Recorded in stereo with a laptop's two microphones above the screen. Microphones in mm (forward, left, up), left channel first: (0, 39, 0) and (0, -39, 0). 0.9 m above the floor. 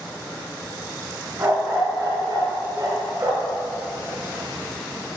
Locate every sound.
1.4 s a dog barking: 35° right (ahead or behind), 4.5 m; by 3.6 s 50° right (ahead or behind), 5.5 m